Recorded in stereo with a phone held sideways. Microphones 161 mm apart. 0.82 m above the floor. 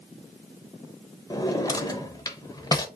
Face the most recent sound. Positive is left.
turn(degrees=25)  # may be behind; listen again after turning